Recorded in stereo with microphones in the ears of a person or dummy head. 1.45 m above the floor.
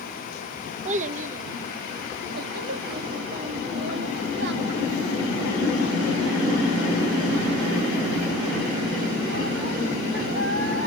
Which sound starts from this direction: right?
A child speaking, at 0.8 s.